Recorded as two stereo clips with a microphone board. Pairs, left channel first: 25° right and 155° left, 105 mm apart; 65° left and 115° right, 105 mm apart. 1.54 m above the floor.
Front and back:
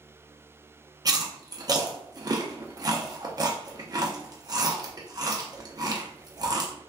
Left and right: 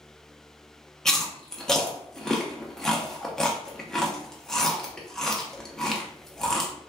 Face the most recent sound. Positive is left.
turn(degrees=150)